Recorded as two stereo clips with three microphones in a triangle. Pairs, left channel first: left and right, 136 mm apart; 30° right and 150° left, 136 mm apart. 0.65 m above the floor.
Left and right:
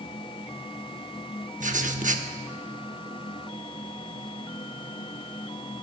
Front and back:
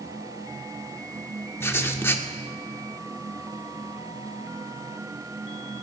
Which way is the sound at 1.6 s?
105° right.